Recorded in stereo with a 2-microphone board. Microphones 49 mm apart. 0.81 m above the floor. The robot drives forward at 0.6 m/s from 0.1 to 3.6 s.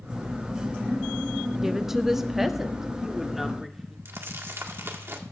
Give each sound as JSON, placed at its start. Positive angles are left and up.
{"t": 1.6, "sound": "a woman speaking", "side_deg": -10, "distance_m": 0.7}
{"t": 4.0, "sound": "crumpling", "side_deg": -65, "distance_m": 1.7}